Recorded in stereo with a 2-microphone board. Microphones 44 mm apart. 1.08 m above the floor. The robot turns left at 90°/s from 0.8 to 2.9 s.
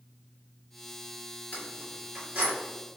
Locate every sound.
1.5 s keys jangling: 40° left (ahead or behind), 1.8 m; by 2.5 s 50° right (ahead or behind), 1.8 m